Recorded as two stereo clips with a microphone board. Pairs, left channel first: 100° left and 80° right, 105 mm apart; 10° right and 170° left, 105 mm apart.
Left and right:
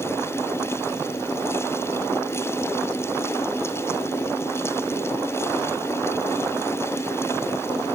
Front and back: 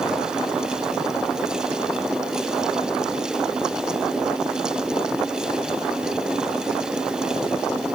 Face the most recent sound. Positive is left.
No sound to turn to.